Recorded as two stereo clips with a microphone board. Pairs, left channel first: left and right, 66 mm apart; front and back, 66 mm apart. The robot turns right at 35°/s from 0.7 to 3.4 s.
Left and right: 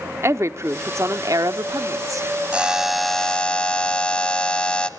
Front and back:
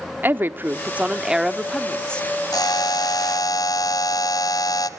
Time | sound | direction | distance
0.2 | a woman speaking | 125° right | 1.0 m
2.5 | a buzzer | 15° right | 1.3 m